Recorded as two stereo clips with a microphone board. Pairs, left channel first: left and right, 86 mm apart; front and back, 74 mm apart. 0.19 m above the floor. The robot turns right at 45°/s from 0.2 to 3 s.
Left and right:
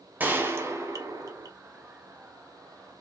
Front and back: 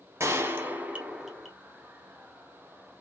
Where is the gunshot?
150° right, 0.7 m; by 1.5 s 90° right, 0.7 m.